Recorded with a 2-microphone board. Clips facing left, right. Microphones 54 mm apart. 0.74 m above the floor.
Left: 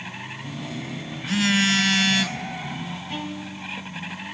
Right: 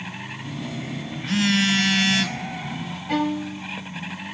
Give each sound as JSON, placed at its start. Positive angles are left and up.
{"t": 0.4, "sound": "a phone buzzing", "side_deg": 0, "distance_m": 0.6}
{"t": 3.1, "sound": "a violin", "side_deg": -70, "distance_m": 0.9}